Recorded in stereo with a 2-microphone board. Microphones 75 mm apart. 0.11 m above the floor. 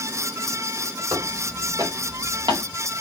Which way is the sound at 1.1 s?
60° right (ahead or behind).